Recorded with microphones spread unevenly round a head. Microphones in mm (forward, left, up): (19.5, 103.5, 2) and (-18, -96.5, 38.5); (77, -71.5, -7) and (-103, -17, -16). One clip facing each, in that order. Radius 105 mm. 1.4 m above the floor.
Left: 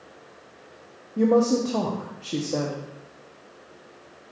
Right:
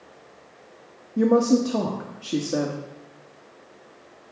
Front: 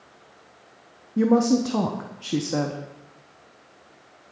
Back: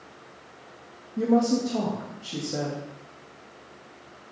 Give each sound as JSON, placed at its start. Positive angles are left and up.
{"t": 1.2, "sound": "a woman speaking", "azimuth_deg": -25, "distance_m": 0.8}